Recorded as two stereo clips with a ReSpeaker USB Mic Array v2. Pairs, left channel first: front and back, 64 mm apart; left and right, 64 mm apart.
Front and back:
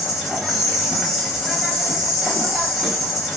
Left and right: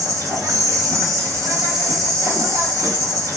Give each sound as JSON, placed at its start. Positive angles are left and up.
{"t": 0.0, "sound": "an insect", "azimuth_deg": -90, "distance_m": 1.0}